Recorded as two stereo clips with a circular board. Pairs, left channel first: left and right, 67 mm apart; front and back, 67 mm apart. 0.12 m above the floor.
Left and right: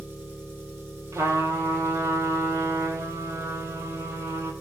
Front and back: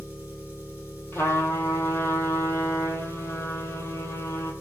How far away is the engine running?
About 1.0 m.